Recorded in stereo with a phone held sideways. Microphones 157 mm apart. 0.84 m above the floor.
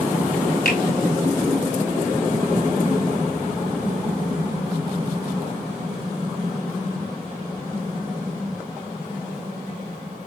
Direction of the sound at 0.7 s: 70° left (ahead or behind).